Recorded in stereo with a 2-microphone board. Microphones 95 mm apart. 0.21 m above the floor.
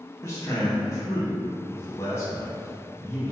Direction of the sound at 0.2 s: 35° left (ahead or behind).